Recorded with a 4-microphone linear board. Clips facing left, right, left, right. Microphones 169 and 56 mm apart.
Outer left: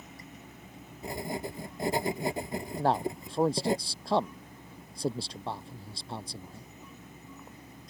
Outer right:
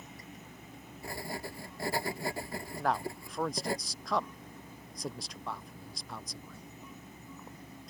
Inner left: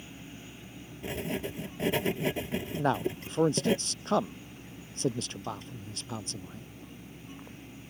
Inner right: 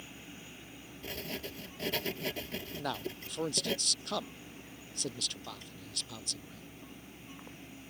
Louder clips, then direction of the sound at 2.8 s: Outer left 5 dB, inner left 10 dB; 30° left (ahead or behind).